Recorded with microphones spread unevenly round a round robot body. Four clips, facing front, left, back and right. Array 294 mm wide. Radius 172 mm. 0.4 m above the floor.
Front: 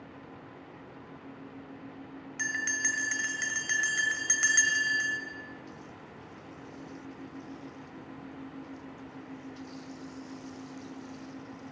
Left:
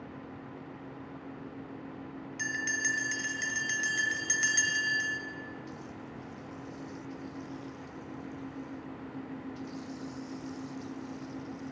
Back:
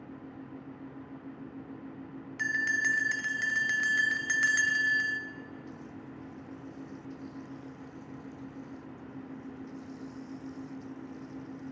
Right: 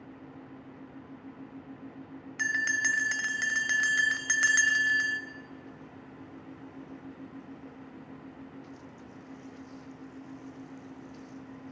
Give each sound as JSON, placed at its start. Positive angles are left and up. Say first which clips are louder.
{"t": 2.4, "sound": "a bell", "louder": "right 5 dB, back 3 dB", "azimuth_deg": -65, "distance_m": 0.8}